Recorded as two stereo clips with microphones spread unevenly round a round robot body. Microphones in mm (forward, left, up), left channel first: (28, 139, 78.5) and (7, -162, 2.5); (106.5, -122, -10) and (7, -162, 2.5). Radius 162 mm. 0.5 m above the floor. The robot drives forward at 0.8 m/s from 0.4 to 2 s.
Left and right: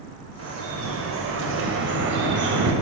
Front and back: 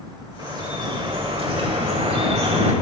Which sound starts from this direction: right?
Dripping, at 0.4 s.